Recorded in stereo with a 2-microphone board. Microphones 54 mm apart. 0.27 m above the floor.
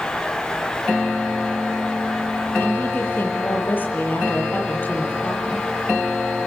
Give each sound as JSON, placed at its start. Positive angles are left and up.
{"t": 2.6, "sound": "a woman speaking", "side_deg": 35, "distance_m": 9.0}